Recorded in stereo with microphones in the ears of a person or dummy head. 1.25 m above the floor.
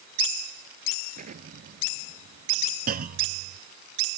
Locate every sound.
1.1 s an explosion: 55° right (ahead or behind)
2.9 s a clunk: 55° right (ahead or behind)